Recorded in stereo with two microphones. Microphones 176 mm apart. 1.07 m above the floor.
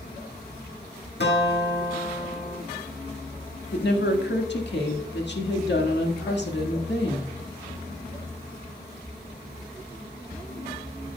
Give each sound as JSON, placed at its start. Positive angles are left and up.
{"t": 1.2, "sound": "a guitar", "side_deg": 75, "distance_m": 1.6}
{"t": 3.7, "sound": "a woman speaking", "side_deg": 85, "distance_m": 1.7}